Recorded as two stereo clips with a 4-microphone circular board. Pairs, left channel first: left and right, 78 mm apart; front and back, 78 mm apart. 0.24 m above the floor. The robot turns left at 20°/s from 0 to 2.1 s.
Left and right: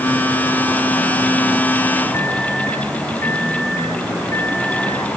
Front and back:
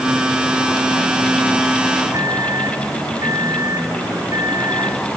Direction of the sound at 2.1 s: 140° left.